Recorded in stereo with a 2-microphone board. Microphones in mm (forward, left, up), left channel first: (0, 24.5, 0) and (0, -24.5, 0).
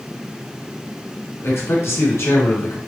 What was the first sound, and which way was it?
A man speaking, 65° left (ahead or behind).